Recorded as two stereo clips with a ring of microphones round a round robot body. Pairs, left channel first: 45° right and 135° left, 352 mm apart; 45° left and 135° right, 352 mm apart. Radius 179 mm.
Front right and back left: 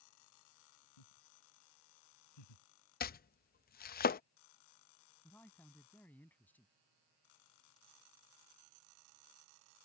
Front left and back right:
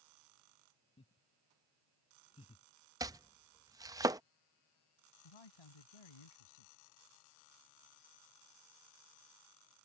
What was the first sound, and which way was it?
Laughter, 30° right.